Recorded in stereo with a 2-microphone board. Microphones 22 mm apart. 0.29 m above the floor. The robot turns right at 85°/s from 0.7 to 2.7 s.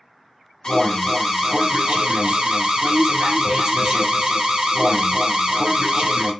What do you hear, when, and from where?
0.6 s an alarm: 135° left, 1.2 m; by 6.3 s 55° right, 1.2 m